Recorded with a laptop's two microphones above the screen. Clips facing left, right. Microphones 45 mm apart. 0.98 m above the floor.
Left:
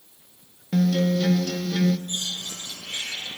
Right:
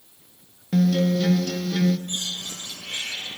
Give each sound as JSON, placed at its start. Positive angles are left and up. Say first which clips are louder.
{"t": 0.7, "sound": "a guitar", "louder": "right 1 dB", "side_deg": 0, "distance_m": 0.8}
{"t": 2.1, "sound": "a bird", "louder": "even", "side_deg": -60, "distance_m": 4.0}